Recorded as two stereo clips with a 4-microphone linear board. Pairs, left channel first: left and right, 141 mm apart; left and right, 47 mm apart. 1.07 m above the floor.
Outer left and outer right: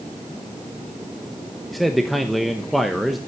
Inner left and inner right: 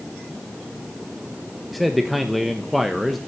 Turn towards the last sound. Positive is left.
turn(degrees=0)  # may be behind; listen again after turning